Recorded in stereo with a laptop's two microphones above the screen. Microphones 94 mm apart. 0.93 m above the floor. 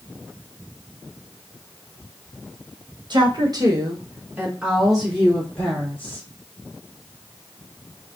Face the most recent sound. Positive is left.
turn(degrees=15)  # may be behind; listen again after turning